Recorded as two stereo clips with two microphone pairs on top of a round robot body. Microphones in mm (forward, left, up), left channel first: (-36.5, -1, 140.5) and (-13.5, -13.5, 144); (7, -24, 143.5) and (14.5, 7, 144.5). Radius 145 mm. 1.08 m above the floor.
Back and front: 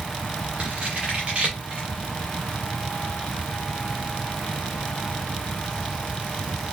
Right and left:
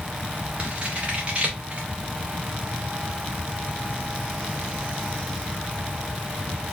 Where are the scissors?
25° left, 0.5 m.